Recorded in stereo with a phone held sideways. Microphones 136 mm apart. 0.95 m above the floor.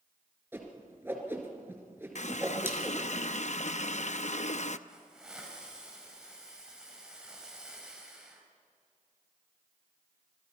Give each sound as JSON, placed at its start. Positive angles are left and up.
{"t": 0.5, "sound": "a whoosh", "side_deg": -15, "distance_m": 3.5}
{"t": 2.1, "sound": "a running tap", "side_deg": 55, "distance_m": 0.6}
{"t": 4.9, "sound": "a hiss", "side_deg": -5, "distance_m": 4.0}